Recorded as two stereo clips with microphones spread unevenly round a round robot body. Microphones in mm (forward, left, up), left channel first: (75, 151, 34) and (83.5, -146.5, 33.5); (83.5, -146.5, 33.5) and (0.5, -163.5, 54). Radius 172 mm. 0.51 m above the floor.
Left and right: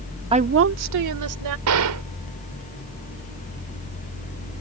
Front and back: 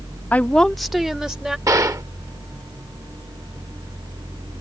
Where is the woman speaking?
25° right; by 1.6 s 85° right.